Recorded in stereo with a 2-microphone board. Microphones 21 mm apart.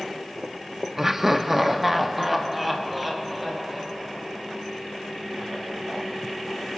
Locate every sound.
1.0 s laughter: 20° right (ahead or behind), 0.6 m; by 4.6 s 5° right (ahead or behind), 2.5 m